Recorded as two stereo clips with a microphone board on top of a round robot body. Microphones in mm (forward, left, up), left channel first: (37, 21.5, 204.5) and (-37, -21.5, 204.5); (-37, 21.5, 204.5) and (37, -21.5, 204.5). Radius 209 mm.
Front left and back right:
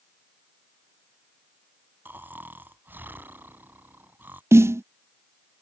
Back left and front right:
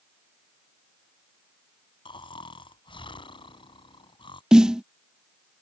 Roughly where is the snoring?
Behind left.